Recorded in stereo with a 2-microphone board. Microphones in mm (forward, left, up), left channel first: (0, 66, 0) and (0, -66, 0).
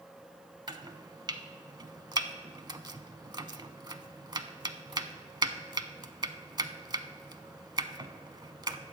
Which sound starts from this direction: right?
Chopping, at 0.7 s.